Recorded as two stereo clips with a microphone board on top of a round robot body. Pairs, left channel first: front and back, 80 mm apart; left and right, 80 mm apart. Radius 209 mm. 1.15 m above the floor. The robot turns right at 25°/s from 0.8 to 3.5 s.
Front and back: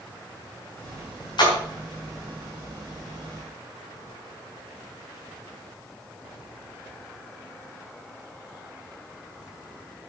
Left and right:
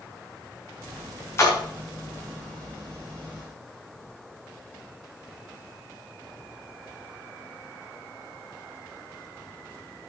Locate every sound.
1.4 s a splash: 30° left, 3 m; by 1.6 s 35° left, 3 m